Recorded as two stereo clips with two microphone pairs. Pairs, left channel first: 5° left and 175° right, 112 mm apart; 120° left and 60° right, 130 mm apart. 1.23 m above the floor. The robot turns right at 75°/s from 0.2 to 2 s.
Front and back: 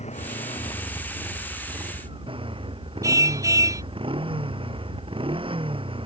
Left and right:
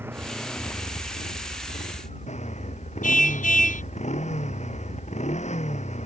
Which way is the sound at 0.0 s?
10° left.